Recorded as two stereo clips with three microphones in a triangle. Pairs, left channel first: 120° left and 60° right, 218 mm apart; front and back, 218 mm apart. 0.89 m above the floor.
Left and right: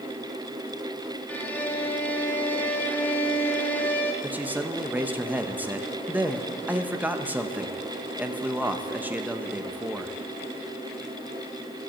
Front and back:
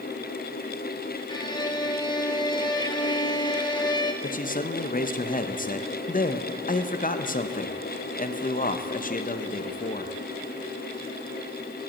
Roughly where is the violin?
Ahead left.